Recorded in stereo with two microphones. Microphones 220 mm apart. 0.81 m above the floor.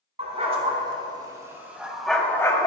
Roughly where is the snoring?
No snoring in this recording.